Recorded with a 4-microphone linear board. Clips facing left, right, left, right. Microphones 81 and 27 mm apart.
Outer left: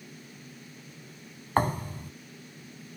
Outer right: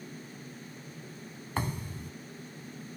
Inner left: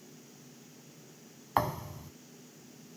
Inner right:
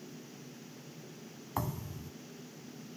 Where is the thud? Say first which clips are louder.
Outer left 9 dB, inner left 7 dB; 50° left (ahead or behind).